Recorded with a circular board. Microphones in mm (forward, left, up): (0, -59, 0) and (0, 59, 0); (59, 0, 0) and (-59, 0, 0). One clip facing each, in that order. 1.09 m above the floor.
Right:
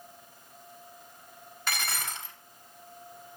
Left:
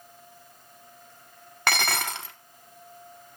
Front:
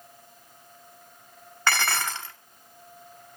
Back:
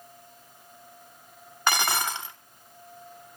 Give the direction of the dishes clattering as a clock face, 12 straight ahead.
8 o'clock.